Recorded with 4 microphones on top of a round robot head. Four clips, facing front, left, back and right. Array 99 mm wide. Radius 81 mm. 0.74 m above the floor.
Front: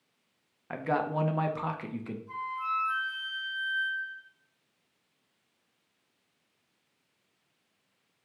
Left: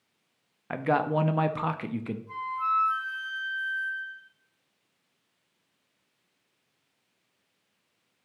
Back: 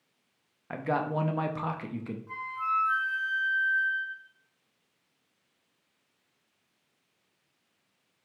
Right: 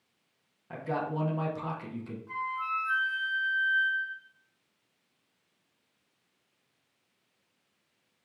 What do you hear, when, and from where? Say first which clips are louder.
0.7 s a man speaking: left 7 dB, even; 85° left, 0.8 m
2.3 s a flute: left 4 dB, back 2 dB; 130° right, 2.5 m